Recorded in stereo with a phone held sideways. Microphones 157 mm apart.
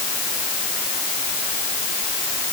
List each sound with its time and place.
Only background noise.